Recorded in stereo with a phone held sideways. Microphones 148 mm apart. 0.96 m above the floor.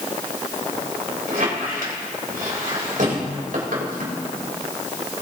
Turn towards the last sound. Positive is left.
turn(degrees=-85)